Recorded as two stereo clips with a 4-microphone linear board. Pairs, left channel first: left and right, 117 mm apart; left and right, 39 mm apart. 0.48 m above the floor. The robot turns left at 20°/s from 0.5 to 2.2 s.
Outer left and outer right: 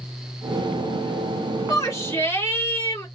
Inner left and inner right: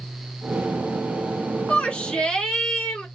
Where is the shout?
30° left (ahead or behind), 2.0 m; by 3.1 s 20° left (ahead or behind), 2.0 m.